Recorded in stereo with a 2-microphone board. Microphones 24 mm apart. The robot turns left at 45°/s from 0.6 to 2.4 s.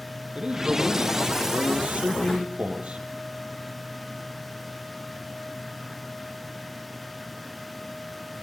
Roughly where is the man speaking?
Ahead right.